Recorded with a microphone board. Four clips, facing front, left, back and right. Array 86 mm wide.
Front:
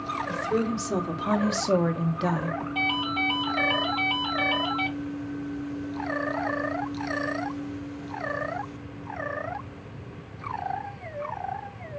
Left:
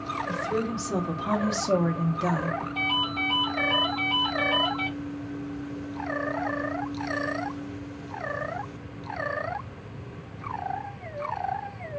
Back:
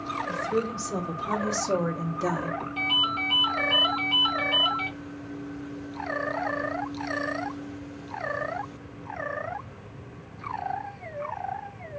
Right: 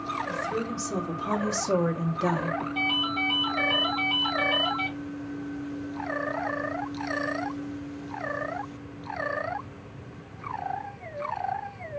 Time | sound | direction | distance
0.3 | a woman speaking | 30° left | 1.6 m
2.8 | a ringtone | straight ahead | 3 m